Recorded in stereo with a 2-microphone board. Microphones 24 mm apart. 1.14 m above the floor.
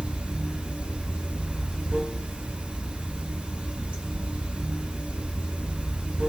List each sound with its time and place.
0.0 s running water: 70° right (ahead or behind), 3.5 m